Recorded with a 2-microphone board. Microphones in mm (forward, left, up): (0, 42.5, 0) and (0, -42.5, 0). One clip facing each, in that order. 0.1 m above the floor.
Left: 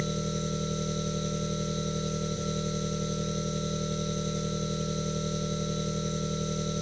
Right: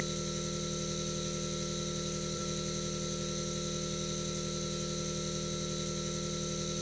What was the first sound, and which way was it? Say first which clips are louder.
An engine running: left 5 dB; 50° left (ahead or behind).